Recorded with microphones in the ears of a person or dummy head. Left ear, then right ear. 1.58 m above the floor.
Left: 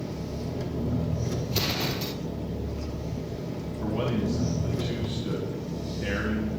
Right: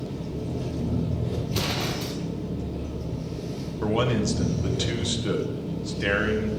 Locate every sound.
0.0 s an engine running: 60° left (ahead or behind), 1.3 m
1.5 s an explosion: 10° left (ahead or behind), 0.8 m
3.8 s a man speaking: 75° right (ahead or behind), 1.3 m